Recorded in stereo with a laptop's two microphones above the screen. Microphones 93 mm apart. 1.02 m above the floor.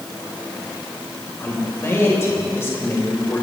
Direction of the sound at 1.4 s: 30° left (ahead or behind).